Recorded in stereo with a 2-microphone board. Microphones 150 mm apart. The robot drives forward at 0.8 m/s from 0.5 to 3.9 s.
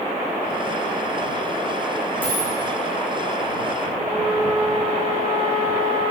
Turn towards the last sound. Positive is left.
turn(degrees=-40)  # may be behind; listen again after turning